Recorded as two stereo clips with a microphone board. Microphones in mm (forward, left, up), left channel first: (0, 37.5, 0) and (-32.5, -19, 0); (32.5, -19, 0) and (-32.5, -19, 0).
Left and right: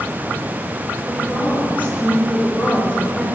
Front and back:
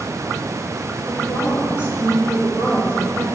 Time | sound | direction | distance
1.1 | a woman speaking | 55° right | 2.5 m